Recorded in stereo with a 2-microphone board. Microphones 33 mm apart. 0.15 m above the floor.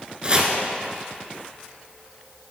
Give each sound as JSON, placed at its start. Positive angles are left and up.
{"t": 0.2, "sound": "chopping", "side_deg": -30, "distance_m": 0.9}